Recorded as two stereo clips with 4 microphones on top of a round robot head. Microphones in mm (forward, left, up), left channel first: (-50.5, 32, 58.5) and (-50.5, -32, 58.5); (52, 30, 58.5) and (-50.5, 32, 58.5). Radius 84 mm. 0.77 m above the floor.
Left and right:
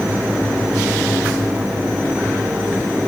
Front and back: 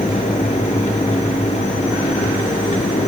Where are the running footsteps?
No running footsteps in this recording.